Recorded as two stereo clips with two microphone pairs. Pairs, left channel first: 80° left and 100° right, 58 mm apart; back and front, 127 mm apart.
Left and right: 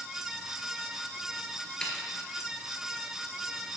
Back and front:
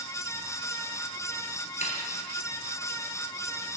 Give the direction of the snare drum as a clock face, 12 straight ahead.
7 o'clock.